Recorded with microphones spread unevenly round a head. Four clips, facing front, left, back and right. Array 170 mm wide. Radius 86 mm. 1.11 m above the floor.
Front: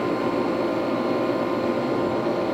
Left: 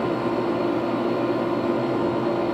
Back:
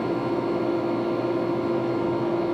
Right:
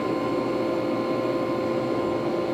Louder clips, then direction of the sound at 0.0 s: Left 2 dB, front 2 dB; 35° left.